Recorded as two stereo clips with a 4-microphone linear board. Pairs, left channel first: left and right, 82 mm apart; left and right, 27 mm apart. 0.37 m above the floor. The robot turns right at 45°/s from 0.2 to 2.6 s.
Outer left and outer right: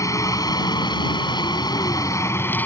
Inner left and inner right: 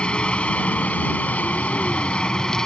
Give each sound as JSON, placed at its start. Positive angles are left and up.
{"t": 0.0, "sound": "a helicopter", "azimuth_deg": 45}